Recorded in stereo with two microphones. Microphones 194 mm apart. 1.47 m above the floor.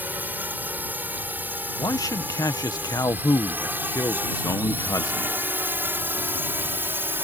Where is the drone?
10° right (ahead or behind).